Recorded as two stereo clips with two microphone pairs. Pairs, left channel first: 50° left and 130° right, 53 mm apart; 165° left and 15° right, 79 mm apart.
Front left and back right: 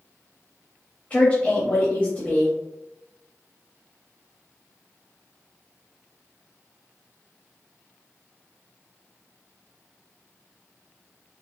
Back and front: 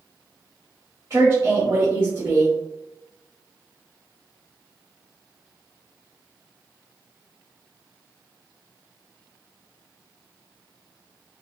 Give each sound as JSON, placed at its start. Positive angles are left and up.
{"t": 1.1, "sound": "a woman speaking", "azimuth_deg": 10, "distance_m": 1.1}